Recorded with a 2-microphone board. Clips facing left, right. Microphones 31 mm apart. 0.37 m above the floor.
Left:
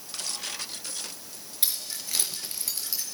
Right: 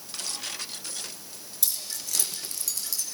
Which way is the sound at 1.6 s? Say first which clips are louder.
Left 1 dB; 35° left (ahead or behind).